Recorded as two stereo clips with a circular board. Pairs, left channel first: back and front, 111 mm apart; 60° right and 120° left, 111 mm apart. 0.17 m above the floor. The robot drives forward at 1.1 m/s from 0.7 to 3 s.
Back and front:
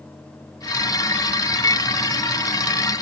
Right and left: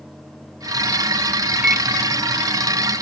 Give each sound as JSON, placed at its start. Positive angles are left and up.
{"t": 1.6, "sound": "a microwave", "azimuth_deg": -165}